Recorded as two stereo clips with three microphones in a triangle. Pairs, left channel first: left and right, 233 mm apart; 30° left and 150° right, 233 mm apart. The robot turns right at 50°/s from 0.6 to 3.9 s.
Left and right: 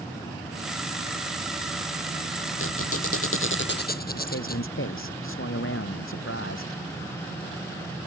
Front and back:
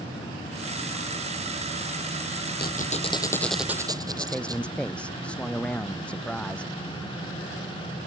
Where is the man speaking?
115° left.